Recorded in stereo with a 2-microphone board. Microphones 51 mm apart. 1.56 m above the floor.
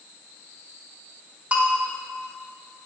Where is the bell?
30° right (ahead or behind), 1.8 m.